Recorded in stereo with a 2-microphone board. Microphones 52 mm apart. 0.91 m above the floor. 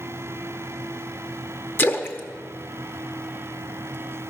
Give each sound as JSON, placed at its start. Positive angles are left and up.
{"t": 1.8, "sound": "a splash", "side_deg": 40, "distance_m": 0.7}